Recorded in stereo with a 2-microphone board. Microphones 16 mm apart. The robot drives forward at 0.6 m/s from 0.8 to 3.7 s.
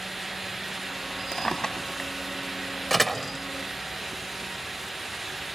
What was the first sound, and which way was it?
A drawer, 55° left (ahead or behind).